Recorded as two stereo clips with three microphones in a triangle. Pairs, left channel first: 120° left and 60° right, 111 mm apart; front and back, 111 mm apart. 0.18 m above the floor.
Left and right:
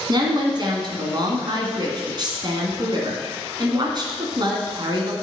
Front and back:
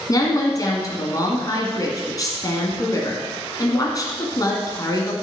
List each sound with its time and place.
0.1 s a woman speaking: 40° right, 1.7 m